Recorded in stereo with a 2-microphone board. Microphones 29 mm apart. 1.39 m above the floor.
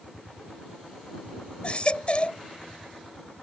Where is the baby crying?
35° left (ahead or behind).